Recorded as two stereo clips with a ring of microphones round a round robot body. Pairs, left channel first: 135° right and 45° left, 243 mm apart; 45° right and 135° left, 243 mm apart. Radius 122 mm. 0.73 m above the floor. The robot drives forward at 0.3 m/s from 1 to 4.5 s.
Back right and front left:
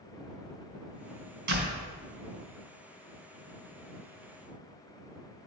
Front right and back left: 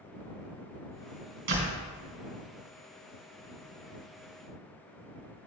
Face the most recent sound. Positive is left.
turn(degrees=105)